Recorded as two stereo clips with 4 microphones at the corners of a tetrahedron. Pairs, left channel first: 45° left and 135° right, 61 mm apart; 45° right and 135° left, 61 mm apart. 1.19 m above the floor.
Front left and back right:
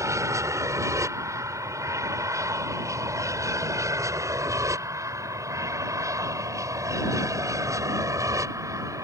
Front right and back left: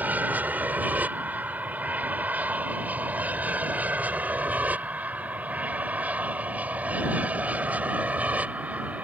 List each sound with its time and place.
0.0 s an aircraft: 165° right; by 9.0 s 160° right